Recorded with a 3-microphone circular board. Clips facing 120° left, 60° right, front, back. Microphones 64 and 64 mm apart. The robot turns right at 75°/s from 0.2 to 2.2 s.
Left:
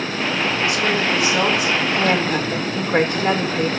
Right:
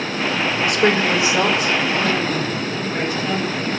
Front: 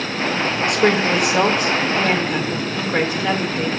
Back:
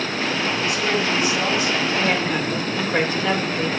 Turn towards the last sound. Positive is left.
turn(degrees=80)